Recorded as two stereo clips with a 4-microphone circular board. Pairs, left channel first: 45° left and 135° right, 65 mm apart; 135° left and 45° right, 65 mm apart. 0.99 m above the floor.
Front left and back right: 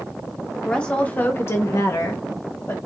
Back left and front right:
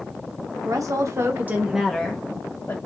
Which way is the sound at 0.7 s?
35° right.